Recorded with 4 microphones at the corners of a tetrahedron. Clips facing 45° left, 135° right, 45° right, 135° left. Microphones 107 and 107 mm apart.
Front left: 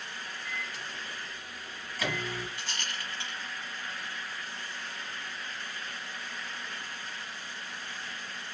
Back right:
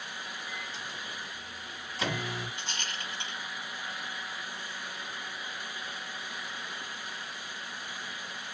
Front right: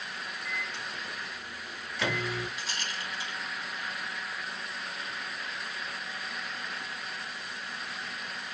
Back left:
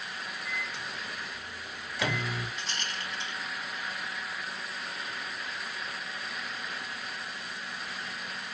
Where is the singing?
I don't hear singing.